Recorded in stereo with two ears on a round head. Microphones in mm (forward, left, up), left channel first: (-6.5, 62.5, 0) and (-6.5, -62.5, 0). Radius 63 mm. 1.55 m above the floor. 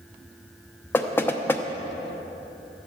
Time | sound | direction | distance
0.9 | knocking | 15° left (ahead or behind) | 0.8 m